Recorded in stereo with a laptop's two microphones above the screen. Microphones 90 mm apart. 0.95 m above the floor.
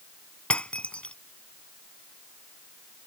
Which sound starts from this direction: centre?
Breaking glass, at 0.5 s.